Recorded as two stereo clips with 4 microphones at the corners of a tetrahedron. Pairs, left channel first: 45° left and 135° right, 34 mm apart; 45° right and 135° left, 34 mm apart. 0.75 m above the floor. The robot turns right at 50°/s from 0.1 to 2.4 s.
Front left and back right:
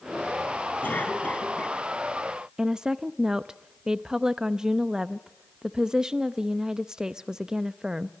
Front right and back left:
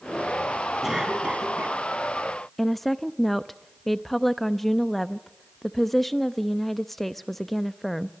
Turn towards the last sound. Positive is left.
turn(degrees=-125)